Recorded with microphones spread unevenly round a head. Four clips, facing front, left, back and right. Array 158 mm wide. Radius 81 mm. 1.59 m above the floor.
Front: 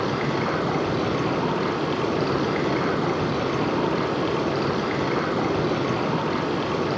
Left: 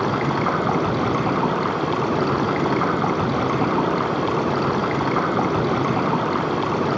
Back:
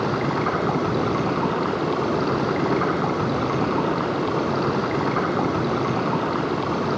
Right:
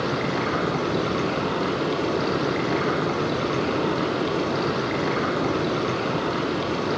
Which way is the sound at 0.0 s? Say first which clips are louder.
Left 4 dB, back 2 dB; 120° left.